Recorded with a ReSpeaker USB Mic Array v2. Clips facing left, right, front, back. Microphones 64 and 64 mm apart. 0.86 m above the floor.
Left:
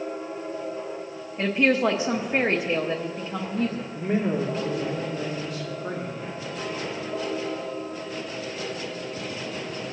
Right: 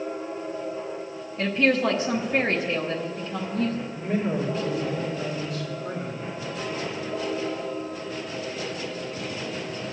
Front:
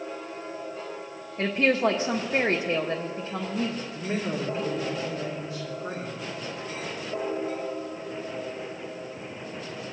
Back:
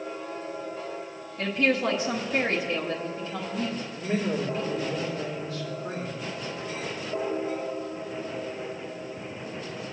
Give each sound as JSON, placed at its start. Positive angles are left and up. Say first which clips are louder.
{"t": 1.4, "sound": "a woman speaking", "louder": "left 1 dB, front 2 dB", "azimuth_deg": 30, "distance_m": 0.8}
{"t": 3.9, "sound": "a man speaking", "louder": "left 3 dB, back 3 dB", "azimuth_deg": 65, "distance_m": 1.6}